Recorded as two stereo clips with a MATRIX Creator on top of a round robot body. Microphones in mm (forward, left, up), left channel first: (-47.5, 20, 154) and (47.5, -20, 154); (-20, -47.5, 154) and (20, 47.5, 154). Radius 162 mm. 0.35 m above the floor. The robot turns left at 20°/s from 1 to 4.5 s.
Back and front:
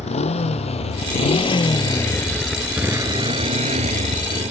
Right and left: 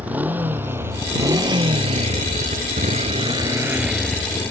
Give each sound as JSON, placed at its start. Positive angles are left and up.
{"t": 0.0, "sound": "a motorcycle", "azimuth_deg": 145}